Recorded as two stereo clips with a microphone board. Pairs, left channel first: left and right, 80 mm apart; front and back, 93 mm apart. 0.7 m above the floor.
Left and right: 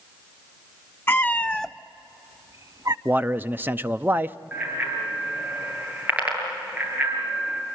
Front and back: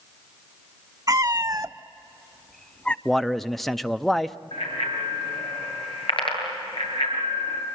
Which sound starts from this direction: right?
A man speaking, at 3.0 s.